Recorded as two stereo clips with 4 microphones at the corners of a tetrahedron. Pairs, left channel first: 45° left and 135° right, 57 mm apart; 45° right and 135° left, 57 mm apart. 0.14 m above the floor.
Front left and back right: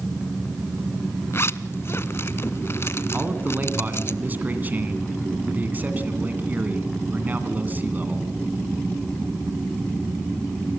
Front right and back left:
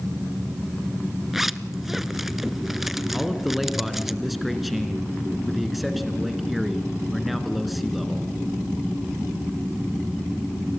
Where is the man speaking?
140° right, 1.8 m.